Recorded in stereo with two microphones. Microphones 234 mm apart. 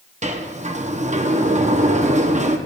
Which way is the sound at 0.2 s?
30° right (ahead or behind).